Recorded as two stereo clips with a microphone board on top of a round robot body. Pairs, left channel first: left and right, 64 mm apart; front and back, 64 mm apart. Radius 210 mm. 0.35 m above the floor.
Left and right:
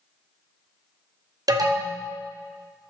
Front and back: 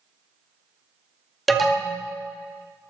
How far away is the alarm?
About 2 m.